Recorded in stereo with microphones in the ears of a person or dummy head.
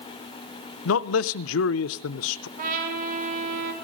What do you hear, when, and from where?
0.8 s a man speaking: 80° left, 0.5 m
2.6 s a trumpet: 45° right (ahead or behind), 2.5 m